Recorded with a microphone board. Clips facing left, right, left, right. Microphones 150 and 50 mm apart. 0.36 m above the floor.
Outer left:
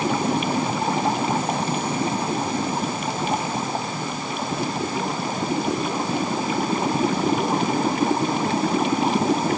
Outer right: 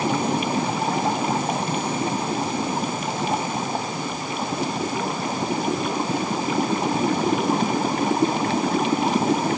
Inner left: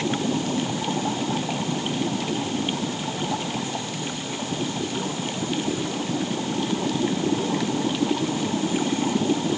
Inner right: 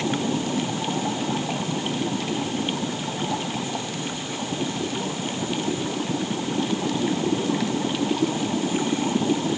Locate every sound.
Only background noise.